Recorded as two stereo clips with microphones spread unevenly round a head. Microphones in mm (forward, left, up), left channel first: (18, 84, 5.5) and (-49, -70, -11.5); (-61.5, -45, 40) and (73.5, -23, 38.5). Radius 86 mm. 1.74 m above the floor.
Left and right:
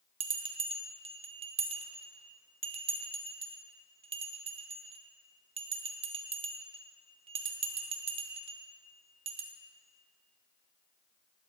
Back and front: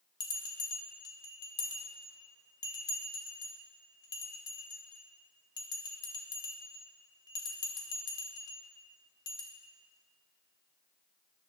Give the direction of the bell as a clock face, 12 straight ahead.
5 o'clock.